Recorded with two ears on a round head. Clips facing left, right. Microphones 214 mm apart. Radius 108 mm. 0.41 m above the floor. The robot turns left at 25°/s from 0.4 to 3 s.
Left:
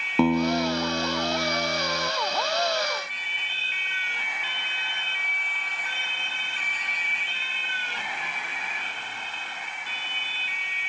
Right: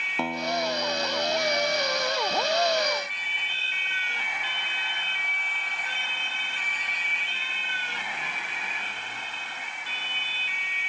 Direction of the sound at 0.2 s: 110° left.